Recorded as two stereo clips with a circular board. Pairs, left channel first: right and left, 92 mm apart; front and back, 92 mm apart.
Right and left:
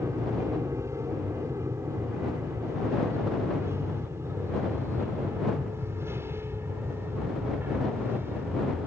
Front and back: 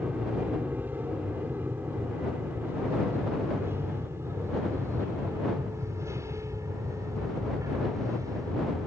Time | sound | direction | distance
0.0 | an aircraft | 120° left | ?